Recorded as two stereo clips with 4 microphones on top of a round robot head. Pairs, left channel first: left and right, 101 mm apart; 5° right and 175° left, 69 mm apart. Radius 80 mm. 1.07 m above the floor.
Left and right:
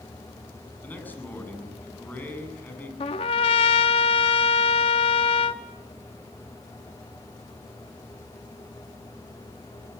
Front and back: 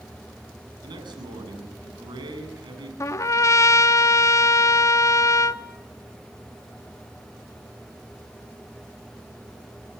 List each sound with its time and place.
0.8 s a man speaking: 165° left, 9 m
3.0 s a trumpet: 40° left, 1.0 m